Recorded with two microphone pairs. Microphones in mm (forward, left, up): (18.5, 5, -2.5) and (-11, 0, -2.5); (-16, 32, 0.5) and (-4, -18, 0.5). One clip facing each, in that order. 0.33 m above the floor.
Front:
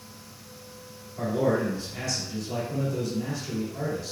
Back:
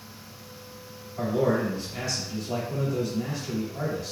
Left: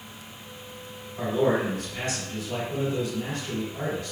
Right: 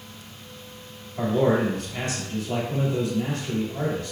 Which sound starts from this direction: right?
A man speaking, at 1.2 s.